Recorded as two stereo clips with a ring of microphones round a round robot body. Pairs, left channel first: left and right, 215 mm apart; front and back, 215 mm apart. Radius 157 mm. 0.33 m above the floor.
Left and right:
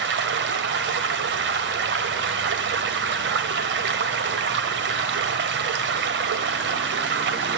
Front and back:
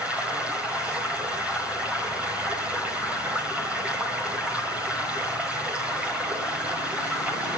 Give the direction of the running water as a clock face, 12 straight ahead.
3 o'clock.